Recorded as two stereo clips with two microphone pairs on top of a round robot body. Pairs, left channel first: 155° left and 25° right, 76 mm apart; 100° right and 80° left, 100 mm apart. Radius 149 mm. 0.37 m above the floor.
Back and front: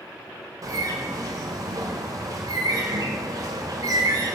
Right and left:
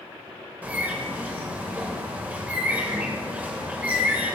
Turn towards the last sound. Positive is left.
turn(degrees=10)